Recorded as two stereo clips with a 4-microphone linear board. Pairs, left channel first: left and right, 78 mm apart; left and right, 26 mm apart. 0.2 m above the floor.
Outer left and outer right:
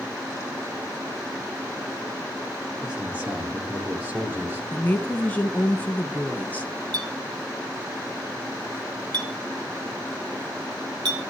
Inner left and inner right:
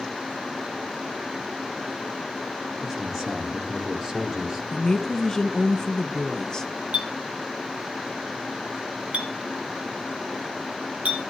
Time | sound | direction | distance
2.8 | a man speaking | 10° right (ahead or behind) | 3 m
4.7 | a woman speaking | 20° left (ahead or behind) | 1.6 m
6.9 | a clink | 65° right (ahead or behind) | 3.5 m